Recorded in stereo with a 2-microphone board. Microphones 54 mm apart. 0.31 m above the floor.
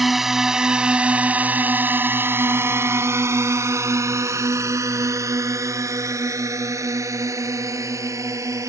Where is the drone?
5° right (ahead or behind); by 8.7 s 75° right (ahead or behind).